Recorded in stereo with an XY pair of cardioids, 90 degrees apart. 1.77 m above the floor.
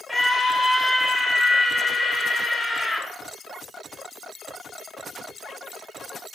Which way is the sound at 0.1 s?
20° left.